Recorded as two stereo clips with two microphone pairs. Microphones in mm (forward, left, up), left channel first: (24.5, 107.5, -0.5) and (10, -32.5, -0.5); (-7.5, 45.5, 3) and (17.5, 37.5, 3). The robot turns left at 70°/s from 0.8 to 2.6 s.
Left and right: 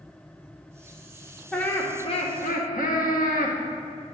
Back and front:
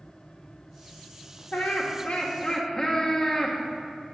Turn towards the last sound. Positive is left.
turn(degrees=90)